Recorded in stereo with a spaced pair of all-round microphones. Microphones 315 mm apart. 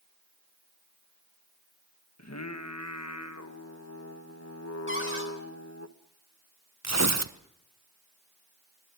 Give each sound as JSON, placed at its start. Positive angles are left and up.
{"t": 2.2, "sound": "singing", "side_deg": 55, "distance_m": 1.4}
{"t": 4.9, "sound": "a cupboard door", "side_deg": 40, "distance_m": 3.5}
{"t": 6.8, "sound": "tearing paper", "side_deg": -55, "distance_m": 1.0}